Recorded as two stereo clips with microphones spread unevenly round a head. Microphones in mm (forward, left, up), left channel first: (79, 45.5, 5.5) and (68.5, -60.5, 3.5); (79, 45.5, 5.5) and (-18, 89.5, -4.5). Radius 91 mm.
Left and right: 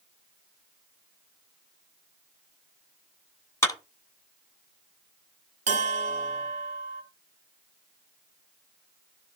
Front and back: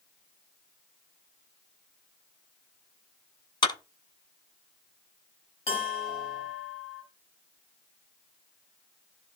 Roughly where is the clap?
Ahead.